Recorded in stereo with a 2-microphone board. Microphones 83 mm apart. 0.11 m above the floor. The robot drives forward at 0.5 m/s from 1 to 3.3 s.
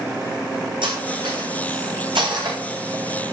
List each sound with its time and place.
0.8 s cutlery clinking: 75° right (ahead or behind), 4.5 m; by 2.6 s 70° right (ahead or behind), 4.5 m